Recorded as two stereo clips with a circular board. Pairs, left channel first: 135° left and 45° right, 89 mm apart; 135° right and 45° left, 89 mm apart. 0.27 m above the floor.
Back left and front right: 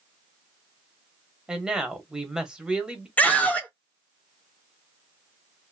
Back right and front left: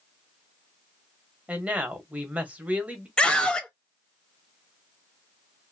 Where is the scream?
170° left, 0.9 m.